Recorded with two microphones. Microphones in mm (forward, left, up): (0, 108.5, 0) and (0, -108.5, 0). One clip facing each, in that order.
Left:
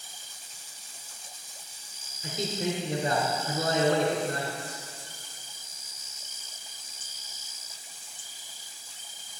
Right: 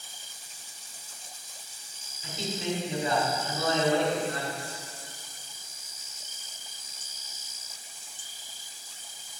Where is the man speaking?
45° left (ahead or behind), 2.5 m.